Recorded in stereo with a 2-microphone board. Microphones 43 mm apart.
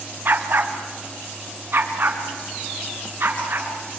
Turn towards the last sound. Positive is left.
turn(degrees=-55)  # may be behind; listen again after turning